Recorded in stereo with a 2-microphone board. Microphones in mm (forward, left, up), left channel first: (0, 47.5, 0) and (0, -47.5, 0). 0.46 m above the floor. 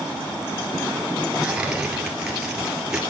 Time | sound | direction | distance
1.4 | tearing paper | 10° right (ahead or behind) | 1.8 m